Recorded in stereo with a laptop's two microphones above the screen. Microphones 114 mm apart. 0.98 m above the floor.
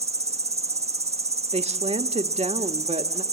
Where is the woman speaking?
70° right (ahead or behind), 1.4 m.